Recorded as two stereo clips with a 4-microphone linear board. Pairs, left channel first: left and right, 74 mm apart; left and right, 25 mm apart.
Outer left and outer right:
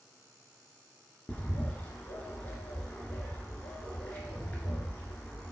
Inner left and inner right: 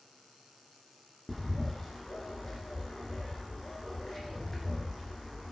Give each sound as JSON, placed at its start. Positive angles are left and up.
{"t": 1.3, "sound": "a bird", "side_deg": 20, "distance_m": 0.7}